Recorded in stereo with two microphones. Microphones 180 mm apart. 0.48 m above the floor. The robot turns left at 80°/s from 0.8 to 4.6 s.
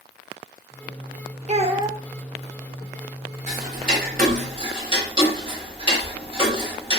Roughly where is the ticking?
Right.